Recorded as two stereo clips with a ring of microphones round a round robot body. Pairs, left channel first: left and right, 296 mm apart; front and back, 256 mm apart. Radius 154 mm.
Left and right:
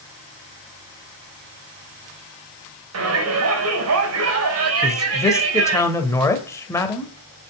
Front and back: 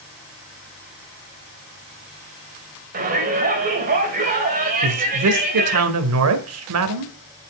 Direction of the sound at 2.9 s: 120° right.